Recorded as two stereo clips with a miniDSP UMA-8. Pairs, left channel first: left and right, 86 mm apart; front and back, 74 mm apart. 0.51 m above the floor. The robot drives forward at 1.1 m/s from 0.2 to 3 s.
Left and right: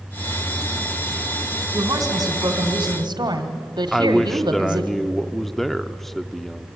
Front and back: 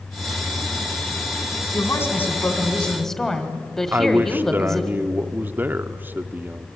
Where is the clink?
No clink in this recording.